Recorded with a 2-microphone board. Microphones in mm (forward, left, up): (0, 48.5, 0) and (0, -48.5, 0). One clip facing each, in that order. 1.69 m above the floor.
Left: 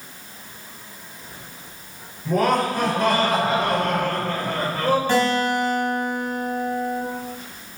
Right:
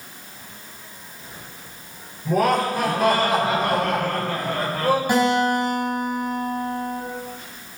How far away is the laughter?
About 7 m.